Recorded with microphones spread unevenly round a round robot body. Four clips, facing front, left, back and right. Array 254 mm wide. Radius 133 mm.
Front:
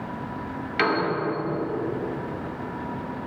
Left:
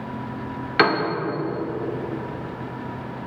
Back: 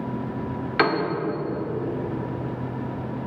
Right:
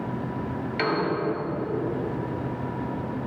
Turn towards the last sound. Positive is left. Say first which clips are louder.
# left 7 dB, back 2 dB
turn(degrees=100)